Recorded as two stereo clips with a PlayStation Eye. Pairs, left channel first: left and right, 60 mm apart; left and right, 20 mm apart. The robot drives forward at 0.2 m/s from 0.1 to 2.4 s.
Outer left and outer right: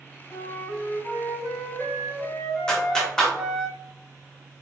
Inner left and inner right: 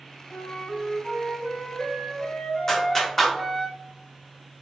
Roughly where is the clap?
Centre.